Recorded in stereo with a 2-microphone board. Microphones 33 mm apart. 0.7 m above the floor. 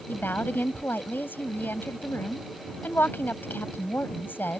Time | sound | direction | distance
0.1 | a woman speaking | 80° left | ?